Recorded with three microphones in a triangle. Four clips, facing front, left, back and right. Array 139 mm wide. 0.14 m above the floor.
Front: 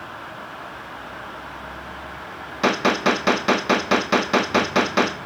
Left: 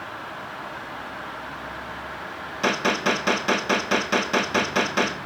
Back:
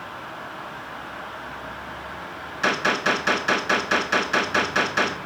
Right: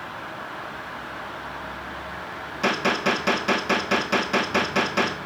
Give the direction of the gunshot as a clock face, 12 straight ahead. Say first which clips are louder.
Even, front 4 dB; 12 o'clock.